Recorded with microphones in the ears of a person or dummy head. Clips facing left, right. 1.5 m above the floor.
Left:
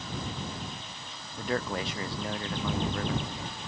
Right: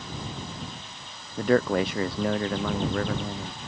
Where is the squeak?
No squeak in this recording.